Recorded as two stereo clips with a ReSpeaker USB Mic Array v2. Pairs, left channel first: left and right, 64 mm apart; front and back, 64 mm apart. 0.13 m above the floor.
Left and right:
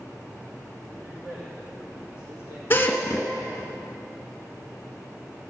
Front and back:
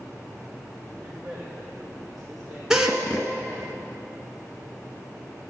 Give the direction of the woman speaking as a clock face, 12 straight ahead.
4 o'clock.